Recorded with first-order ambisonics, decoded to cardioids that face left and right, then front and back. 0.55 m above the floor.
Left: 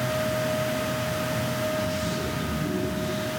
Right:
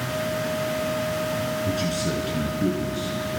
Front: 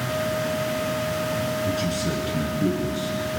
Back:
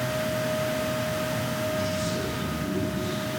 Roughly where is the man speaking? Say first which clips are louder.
Right 1 dB, front 2 dB; ahead right.